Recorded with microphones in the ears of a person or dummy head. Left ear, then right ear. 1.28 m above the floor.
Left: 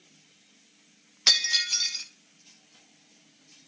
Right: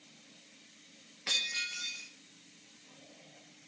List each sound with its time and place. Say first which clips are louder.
1.3 s breaking glass: left 11 dB; 60° left (ahead or behind), 0.6 m